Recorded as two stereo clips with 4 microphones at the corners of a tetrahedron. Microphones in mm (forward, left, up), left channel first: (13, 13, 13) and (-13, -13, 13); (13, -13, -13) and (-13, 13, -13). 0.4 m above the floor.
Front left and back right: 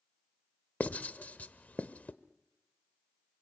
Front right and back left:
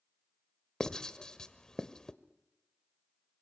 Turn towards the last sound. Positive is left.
turn(degrees=20)